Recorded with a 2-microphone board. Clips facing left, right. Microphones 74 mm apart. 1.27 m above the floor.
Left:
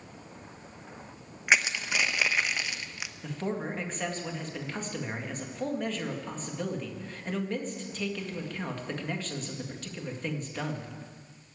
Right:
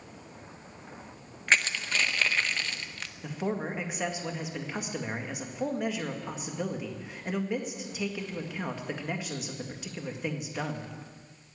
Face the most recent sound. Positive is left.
turn(degrees=-10)  # may be behind; listen again after turning